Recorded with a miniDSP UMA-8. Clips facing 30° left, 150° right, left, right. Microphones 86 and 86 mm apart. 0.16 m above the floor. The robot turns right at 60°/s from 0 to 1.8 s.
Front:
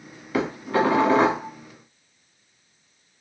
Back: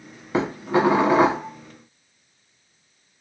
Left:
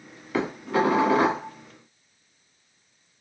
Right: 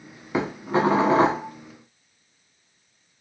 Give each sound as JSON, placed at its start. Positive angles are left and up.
{"t": 0.3, "sound": "dishes clattering", "azimuth_deg": -135, "distance_m": 0.7}